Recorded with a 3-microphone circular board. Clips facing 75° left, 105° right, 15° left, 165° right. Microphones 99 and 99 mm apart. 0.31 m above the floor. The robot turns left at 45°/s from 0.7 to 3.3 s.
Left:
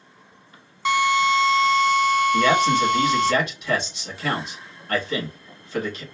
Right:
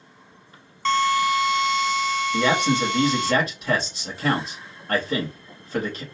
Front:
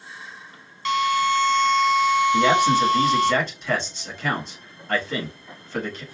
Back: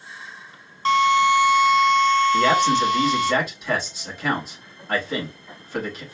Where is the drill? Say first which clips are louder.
Left 1 dB, back 4 dB; 150° left, 0.7 m; by 3.3 s 40° left, 0.7 m.